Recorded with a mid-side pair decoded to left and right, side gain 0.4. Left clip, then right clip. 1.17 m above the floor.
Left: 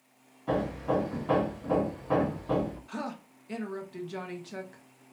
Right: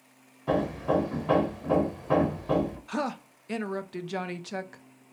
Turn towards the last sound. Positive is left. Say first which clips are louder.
# right 6 dB
turn(degrees=-60)